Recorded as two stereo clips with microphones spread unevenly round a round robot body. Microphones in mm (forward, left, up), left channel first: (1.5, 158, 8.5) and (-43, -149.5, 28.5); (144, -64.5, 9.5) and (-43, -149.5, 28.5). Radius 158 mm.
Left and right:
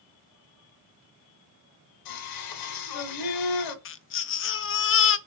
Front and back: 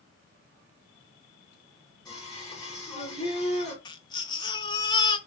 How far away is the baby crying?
About 0.6 m.